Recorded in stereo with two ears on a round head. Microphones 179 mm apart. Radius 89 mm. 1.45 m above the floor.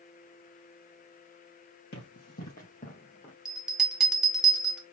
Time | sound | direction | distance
1.9 | running footsteps | 55° left (ahead or behind) | 3.5 m
3.5 | a bell | 5° right (ahead or behind) | 1.3 m